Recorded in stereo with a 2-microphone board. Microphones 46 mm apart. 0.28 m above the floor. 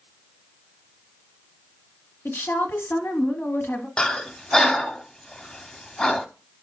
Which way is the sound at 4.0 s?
20° left (ahead or behind).